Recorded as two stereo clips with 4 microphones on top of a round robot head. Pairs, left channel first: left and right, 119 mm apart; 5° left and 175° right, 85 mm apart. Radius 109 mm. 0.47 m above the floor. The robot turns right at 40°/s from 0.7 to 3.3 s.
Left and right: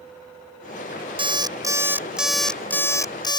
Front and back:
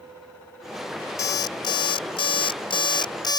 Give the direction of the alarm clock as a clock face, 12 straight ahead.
2 o'clock.